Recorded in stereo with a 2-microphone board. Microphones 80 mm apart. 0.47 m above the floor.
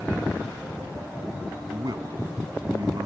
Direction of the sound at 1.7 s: 55° right (ahead or behind).